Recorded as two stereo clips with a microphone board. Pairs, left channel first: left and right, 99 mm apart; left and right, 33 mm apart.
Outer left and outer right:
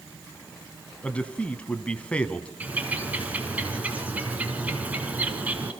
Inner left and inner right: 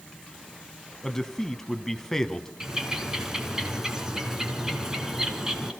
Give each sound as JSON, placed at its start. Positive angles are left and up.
{"t": 1.0, "sound": "a man speaking", "side_deg": 15, "distance_m": 1.1}
{"t": 2.6, "sound": "a bird", "side_deg": -15, "distance_m": 2.5}